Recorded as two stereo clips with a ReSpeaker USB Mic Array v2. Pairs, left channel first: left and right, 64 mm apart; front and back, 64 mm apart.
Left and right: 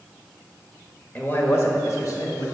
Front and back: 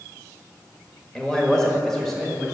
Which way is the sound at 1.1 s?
65° left.